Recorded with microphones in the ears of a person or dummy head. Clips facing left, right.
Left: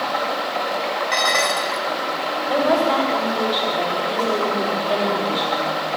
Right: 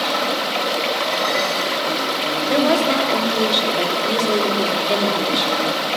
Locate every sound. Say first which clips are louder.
0.0 s running water: right 2 dB; 40° right (ahead or behind), 1.9 m
1.1 s dishes clattering: right 1 dB; 50° left (ahead or behind), 2.5 m
2.5 s a woman speaking: right 1 dB; 25° right (ahead or behind), 4 m